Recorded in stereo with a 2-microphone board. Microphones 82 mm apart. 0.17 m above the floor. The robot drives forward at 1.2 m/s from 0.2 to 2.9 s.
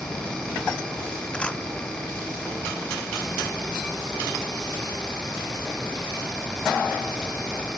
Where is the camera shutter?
15° left (ahead or behind).